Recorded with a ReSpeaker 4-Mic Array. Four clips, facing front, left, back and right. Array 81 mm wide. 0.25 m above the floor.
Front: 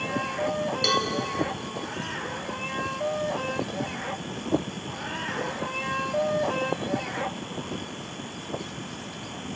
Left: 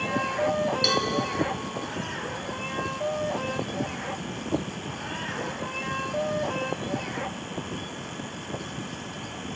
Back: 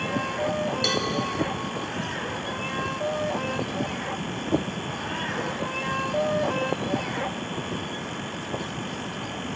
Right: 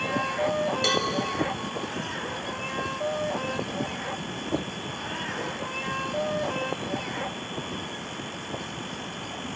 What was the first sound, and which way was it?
A cowbell, 95° right.